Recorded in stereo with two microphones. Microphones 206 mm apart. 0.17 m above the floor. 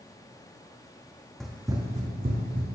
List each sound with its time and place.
1.4 s running footsteps: centre (ahead or behind), 0.5 m; by 2.6 s 55° right (ahead or behind), 0.8 m